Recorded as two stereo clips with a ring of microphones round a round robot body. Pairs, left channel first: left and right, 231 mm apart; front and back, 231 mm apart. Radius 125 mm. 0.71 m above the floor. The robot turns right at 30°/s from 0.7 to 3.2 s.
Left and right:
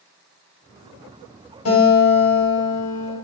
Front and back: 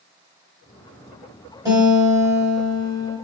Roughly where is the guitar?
Left.